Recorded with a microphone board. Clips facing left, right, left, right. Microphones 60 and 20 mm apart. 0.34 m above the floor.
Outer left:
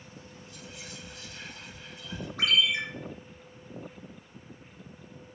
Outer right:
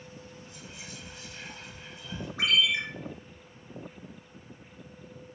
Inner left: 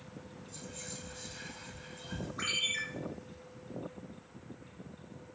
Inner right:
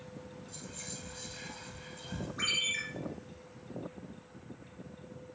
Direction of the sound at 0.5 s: 25° right (ahead or behind).